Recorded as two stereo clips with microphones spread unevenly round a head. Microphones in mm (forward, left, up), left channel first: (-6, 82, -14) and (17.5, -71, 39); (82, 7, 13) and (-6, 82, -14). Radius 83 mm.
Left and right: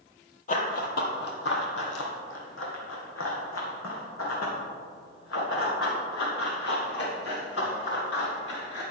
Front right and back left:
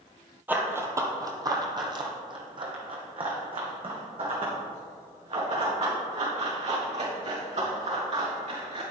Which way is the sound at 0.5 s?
55° left.